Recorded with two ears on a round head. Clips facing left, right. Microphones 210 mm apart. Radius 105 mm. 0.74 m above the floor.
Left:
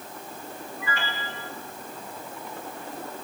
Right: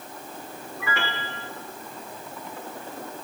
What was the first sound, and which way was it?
A piano, 55° right (ahead or behind).